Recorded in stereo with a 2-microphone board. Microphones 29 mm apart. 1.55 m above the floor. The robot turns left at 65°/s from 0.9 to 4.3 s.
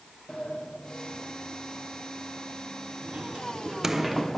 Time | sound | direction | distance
0.3 | a sliding door | 30° left (ahead or behind) | 0.8 m